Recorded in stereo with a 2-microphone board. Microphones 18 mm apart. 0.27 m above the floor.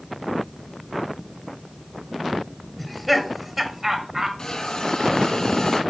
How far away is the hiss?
About 2.5 m.